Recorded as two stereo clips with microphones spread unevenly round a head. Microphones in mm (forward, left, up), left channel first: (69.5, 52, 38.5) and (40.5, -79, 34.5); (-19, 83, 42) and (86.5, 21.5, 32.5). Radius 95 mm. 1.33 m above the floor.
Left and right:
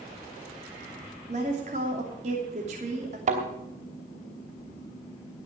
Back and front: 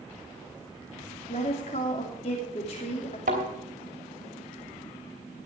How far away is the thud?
About 3 m.